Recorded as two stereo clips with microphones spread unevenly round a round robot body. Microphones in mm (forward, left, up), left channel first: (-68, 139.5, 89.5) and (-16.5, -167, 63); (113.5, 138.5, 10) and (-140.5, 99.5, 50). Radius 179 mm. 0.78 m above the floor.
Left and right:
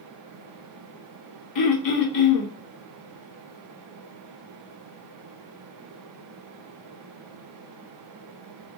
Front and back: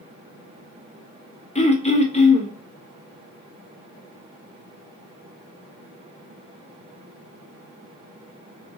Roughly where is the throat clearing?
Left.